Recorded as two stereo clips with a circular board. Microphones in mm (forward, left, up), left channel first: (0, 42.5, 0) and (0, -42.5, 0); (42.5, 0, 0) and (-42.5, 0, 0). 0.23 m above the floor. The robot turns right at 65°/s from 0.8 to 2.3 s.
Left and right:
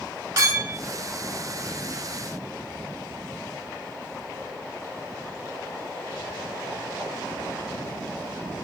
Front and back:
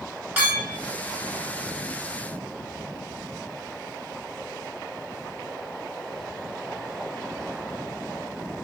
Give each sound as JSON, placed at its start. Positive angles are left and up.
{"t": 0.4, "sound": "a clink", "azimuth_deg": -115, "distance_m": 1.4}